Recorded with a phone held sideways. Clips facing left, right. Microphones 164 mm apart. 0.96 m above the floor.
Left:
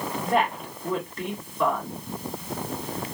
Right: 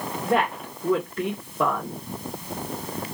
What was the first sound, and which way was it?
A woman speaking, 65° right (ahead or behind).